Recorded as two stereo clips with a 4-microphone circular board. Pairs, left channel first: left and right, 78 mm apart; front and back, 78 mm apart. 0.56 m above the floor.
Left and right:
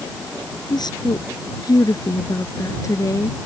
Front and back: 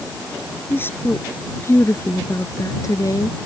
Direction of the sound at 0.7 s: 65° left.